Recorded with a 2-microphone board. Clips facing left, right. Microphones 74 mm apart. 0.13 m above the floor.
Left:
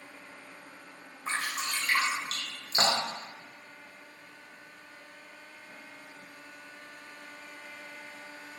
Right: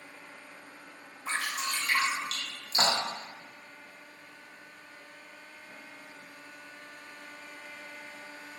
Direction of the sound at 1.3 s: 35° left (ahead or behind).